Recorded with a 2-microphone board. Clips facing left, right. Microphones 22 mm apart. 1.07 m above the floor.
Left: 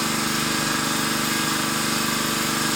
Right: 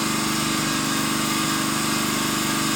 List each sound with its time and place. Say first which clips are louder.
0.0 s an engine running: even; 70° left (ahead or behind), 0.9 m